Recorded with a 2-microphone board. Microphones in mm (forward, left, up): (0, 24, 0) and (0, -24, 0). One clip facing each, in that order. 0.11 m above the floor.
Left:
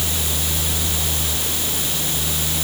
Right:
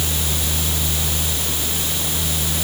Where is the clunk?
No clunk in this recording.